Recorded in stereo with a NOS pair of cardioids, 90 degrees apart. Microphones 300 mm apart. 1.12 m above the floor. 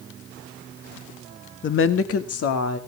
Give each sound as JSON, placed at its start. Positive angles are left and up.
{"t": 1.6, "sound": "a woman speaking", "azimuth_deg": 40, "distance_m": 1.4}